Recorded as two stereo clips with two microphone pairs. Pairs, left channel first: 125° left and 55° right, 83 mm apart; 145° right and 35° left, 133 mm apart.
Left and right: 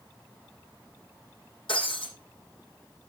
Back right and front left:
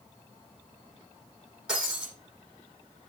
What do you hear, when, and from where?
1.7 s breaking glass: 115° left, 8.5 m